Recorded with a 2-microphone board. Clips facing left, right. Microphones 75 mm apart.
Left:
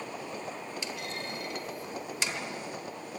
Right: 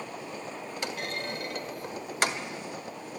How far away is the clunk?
About 1.5 m.